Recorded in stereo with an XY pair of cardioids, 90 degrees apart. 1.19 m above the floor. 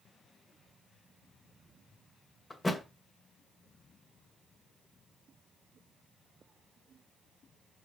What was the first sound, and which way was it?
A thud, 25° left.